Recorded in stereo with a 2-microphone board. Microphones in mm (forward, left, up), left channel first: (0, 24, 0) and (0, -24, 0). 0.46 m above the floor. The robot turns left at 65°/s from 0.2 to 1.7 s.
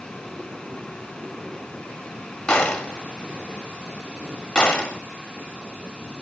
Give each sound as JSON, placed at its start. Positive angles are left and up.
{"t": 2.5, "sound": "a gunshot", "side_deg": 20, "distance_m": 1.6}